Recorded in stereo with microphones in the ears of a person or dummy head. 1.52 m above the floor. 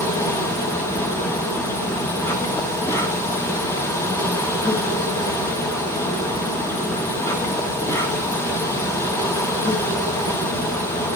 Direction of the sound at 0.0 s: 20° left (ahead or behind).